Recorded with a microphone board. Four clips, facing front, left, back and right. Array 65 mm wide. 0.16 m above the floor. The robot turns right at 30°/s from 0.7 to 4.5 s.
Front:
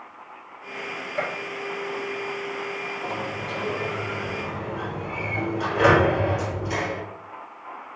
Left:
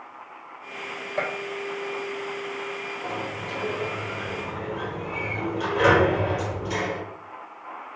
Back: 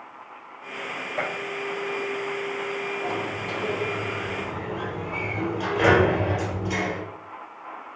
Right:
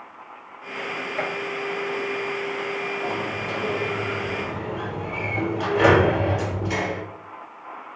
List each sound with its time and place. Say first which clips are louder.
1.2 s a gunshot: left 1 dB, front 1 dB; 100° left, 4 m; by 1.3 s 105° left, 4 m
3.0 s a sliding door: right 4 dB, back 1 dB; 140° right, 2.5 m; by 7.0 s 95° right, 2.5 m